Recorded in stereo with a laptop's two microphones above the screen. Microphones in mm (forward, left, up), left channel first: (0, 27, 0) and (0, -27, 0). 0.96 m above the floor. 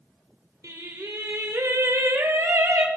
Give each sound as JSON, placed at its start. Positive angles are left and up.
{"t": 0.6, "sound": "singing", "side_deg": -75, "distance_m": 1.7}